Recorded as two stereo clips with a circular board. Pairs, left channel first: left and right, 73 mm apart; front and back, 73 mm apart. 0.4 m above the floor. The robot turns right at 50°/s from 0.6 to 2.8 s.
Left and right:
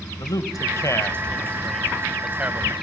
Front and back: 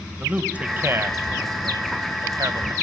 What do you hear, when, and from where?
0.2 s a man speaking: 115° left, 1.8 m; by 2.7 s 140° right, 1.8 m